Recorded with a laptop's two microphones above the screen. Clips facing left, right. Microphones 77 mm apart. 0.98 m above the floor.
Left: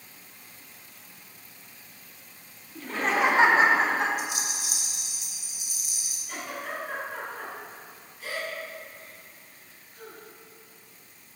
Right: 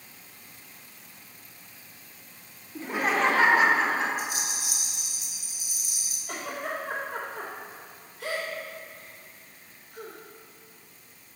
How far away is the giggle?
About 2.5 m.